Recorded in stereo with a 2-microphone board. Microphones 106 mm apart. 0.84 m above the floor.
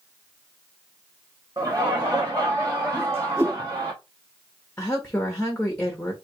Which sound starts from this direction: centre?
A woman speaking, at 4.8 s.